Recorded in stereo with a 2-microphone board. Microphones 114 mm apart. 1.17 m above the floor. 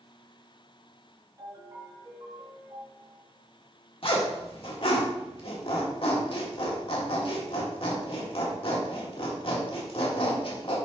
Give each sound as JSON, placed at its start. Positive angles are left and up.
{"t": 1.4, "sound": "a ringtone", "side_deg": -35, "distance_m": 3.5}
{"t": 4.0, "sound": "a zipper", "side_deg": 55, "distance_m": 1.7}